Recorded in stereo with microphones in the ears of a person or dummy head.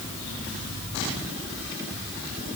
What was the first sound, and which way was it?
Only background noise.